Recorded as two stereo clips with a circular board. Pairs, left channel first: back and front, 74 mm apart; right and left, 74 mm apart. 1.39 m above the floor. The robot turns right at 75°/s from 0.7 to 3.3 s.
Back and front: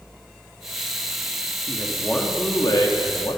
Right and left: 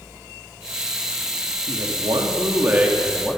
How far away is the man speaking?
About 3.5 m.